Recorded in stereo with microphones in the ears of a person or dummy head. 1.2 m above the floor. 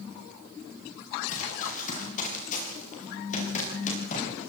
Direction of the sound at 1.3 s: 45° left (ahead or behind).